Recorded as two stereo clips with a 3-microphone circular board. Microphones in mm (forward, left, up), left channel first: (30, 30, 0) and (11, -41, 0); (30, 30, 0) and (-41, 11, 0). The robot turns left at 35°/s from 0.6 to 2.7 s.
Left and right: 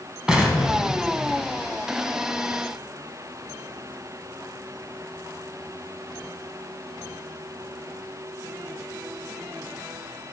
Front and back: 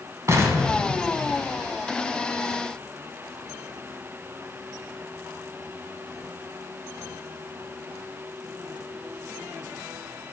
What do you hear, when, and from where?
0.3 s an explosion: straight behind, 1.6 m; by 1.8 s 140° left, 1.6 m